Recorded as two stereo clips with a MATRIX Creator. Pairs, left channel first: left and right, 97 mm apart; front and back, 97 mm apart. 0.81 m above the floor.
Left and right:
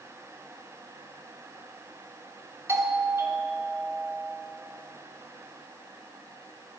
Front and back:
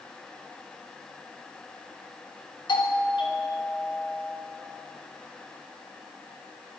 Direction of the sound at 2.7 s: 30° right.